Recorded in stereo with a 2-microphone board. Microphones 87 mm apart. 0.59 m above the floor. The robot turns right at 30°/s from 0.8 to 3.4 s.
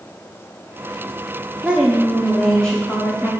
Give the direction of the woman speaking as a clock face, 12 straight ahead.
1 o'clock.